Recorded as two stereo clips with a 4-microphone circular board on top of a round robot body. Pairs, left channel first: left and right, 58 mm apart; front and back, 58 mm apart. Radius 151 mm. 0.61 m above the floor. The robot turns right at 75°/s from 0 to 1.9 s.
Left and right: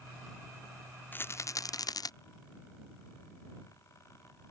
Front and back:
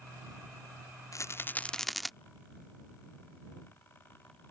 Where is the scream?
No scream in this recording.